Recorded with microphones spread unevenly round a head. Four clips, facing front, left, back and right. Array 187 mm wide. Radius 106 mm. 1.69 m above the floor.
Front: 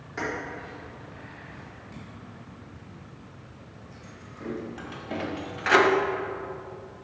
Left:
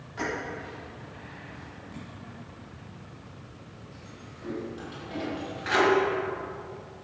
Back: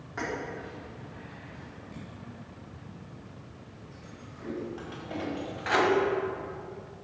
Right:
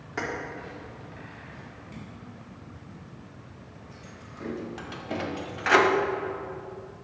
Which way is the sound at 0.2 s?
80° right.